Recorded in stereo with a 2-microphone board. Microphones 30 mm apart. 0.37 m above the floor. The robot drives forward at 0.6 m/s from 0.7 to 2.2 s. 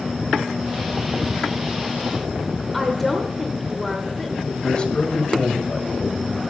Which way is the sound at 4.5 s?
30° left (ahead or behind).